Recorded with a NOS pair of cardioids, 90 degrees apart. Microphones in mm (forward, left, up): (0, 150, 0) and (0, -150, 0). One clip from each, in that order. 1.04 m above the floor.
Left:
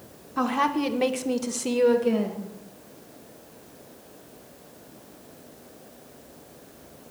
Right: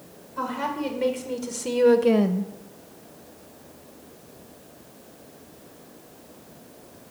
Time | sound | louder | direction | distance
0.4 | a woman speaking | left 4 dB | 60° left | 1.2 m